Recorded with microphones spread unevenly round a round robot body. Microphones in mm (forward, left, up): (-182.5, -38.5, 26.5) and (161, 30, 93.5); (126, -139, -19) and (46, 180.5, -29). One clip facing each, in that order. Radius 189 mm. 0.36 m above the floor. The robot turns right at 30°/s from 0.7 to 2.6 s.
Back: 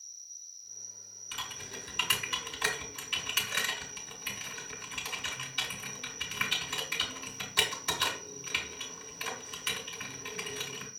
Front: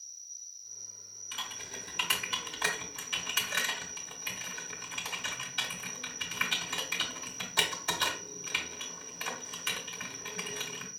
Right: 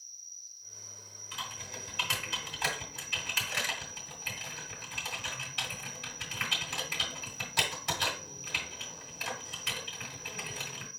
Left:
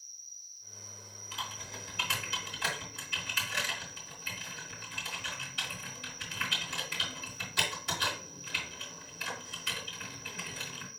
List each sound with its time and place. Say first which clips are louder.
0.0 s an insect: front 1 dB, even; 55° right, 0.8 m; by 11.0 s 5° left, 0.8 m
1.3 s typing on a keyboard: back 1 dB, right 1 dB; 140° right, 1.7 m; by 10.9 s 100° right, 1.7 m